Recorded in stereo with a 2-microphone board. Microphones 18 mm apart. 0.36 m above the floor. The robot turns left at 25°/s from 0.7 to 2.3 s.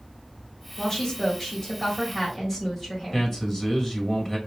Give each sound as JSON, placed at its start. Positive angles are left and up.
{"t": 0.8, "sound": "a woman speaking", "azimuth_deg": 35, "distance_m": 1.8}
{"t": 3.1, "sound": "a man speaking", "side_deg": 15, "distance_m": 1.7}